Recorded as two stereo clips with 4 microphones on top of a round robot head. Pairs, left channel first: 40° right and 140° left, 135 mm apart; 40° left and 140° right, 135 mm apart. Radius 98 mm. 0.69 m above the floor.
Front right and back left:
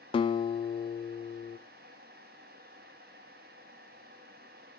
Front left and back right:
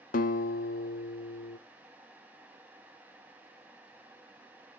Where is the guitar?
15° left, 0.6 m.